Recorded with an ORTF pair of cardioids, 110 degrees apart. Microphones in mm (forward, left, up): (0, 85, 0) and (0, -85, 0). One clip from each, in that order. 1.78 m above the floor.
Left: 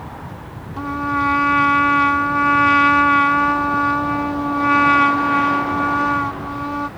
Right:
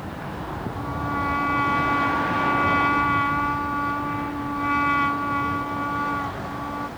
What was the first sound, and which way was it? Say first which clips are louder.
A trumpet: left 8 dB; 45° left.